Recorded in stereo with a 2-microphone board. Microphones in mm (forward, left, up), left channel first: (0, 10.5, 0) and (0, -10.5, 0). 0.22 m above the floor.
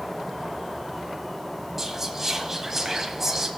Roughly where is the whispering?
Centre.